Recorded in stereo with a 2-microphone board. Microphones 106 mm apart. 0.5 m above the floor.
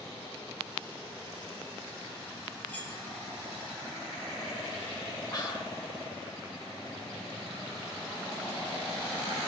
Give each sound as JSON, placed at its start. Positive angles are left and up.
{"t": 2.7, "sound": "cutlery clinking", "side_deg": 15, "distance_m": 4.0}
{"t": 5.3, "sound": "whispering", "side_deg": 40, "distance_m": 1.6}